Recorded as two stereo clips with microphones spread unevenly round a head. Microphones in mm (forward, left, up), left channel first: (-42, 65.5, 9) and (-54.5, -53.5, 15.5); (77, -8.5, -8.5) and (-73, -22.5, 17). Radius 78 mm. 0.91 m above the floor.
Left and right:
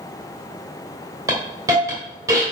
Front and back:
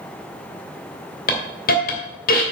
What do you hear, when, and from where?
1.3 s a hiss: 25° right, 2.5 m